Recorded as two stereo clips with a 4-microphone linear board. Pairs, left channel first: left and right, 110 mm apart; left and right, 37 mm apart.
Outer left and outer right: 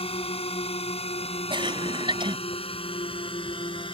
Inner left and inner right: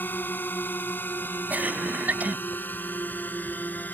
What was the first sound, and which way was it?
A drone, 65° left (ahead or behind).